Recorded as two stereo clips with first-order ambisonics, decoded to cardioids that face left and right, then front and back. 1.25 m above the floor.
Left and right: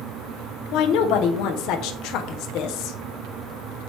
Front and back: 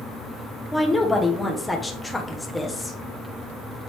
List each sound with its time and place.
0.7 s a woman speaking: 85° left, 0.9 m